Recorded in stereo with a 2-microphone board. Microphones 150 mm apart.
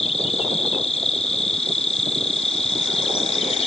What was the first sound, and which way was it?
An insect, 45° left (ahead or behind).